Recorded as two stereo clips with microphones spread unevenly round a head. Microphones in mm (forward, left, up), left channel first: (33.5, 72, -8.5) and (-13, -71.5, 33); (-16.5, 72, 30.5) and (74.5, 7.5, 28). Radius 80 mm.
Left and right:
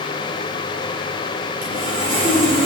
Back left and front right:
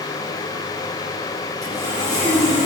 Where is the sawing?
145° right, 7 m.